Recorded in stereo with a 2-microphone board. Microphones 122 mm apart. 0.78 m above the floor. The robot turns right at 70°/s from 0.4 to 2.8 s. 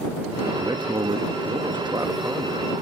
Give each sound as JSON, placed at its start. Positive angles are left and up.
{"t": 0.6, "sound": "a man speaking", "azimuth_deg": -145}